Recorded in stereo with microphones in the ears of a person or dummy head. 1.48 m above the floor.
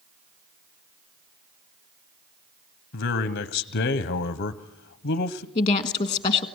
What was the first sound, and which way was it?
A man speaking, 55° left (ahead or behind).